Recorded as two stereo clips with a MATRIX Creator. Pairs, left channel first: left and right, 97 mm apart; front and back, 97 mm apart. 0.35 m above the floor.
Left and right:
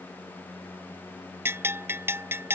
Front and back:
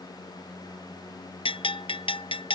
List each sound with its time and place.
1.4 s a bell: 25° right